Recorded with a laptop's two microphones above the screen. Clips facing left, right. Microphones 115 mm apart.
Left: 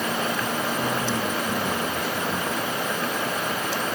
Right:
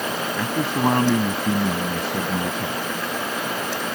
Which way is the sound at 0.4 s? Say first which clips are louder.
Right 3 dB; 85° right.